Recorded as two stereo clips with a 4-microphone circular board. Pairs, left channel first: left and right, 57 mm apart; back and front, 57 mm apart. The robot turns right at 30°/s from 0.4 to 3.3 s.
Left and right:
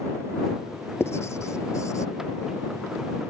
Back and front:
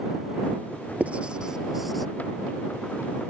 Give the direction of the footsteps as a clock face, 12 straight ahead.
I don't hear footsteps.